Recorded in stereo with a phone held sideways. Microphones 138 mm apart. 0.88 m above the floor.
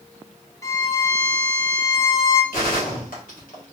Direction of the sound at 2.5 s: 80° left.